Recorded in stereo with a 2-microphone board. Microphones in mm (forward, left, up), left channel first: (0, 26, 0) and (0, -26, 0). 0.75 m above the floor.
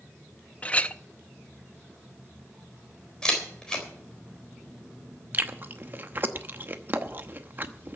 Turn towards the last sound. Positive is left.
turn(degrees=-35)  # may be behind; listen again after turning